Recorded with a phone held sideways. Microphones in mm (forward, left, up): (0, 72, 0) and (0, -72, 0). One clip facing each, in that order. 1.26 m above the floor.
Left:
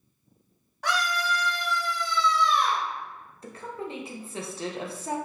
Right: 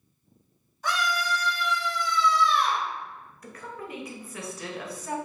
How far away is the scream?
About 1.0 m.